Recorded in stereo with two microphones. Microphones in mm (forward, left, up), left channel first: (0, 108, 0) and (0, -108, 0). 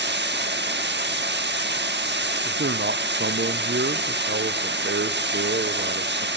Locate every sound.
0.0 s running water: 55° right (ahead or behind), 1.2 m
2.5 s a man speaking: 55° right (ahead or behind), 0.8 m